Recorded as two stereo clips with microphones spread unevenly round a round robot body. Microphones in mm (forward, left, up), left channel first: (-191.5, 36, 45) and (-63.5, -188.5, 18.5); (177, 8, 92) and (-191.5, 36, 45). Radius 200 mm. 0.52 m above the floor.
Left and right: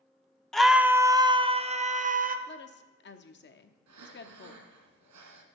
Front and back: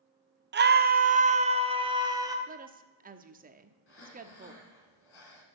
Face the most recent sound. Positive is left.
turn(degrees=-60)